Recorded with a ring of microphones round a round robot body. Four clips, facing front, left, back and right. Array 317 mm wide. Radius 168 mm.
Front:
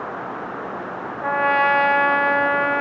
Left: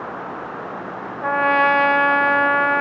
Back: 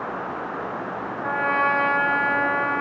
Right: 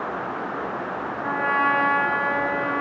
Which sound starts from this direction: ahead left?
A trumpet, at 1.2 s.